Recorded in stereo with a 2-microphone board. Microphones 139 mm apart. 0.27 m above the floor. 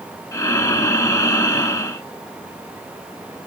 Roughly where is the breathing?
Left.